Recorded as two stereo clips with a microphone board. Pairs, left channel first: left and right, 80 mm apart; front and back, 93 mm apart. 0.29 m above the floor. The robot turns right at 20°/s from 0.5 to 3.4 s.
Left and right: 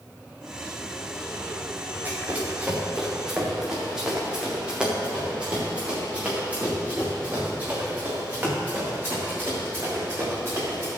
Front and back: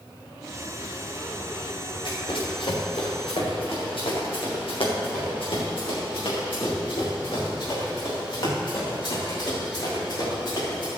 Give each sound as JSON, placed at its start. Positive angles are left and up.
{"t": 2.0, "sound": "running footsteps", "azimuth_deg": -25, "distance_m": 6.0}